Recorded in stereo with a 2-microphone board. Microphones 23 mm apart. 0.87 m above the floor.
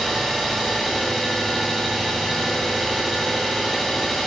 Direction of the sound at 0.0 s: 10° left (ahead or behind).